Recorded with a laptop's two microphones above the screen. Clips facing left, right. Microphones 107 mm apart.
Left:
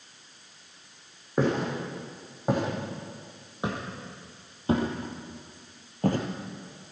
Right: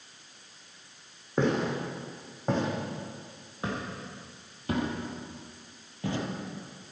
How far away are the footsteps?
About 4 m.